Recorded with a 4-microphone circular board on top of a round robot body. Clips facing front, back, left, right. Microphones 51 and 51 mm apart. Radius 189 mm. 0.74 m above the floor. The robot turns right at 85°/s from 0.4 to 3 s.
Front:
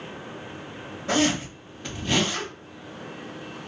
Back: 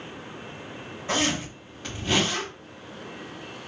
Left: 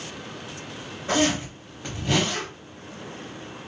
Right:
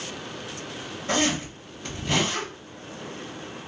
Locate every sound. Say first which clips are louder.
1.1 s a zipper: front 3 dB, left 2 dB; 20° left, 0.9 m; by 2.5 s 140° left, 0.9 m